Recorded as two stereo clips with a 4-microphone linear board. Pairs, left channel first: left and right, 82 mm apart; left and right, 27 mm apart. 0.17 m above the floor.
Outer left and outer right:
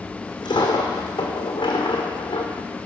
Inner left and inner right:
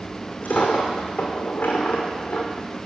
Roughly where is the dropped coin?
Left.